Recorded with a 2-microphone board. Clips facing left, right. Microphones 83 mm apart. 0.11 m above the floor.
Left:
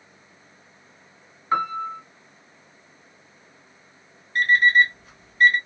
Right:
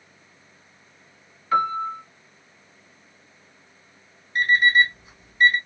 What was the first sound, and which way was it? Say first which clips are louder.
A piano: right 2 dB; 25° left (ahead or behind).